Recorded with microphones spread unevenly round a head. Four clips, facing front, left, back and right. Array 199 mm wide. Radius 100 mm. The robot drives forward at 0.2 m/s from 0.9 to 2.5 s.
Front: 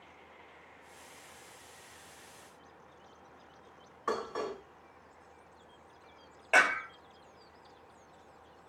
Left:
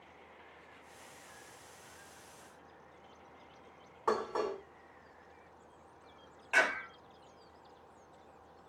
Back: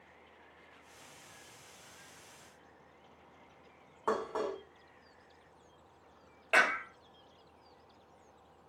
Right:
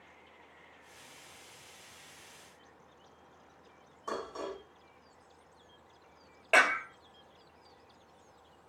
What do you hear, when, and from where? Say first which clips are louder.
4.1 s dishes clattering: left 5 dB, back 1 dB; 155° left, 6 m
6.5 s a clap: right 5 dB, front 2 dB; 105° right, 5.5 m